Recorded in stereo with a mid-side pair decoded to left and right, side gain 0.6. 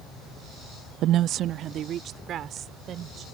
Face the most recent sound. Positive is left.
turn(degrees=-50)